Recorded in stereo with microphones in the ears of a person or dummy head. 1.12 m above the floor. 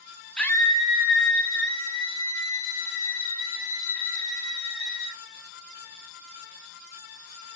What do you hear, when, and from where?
0.4 s a scream: 5° left (ahead or behind), 0.7 m; by 5.2 s 70° left (ahead or behind), 3 m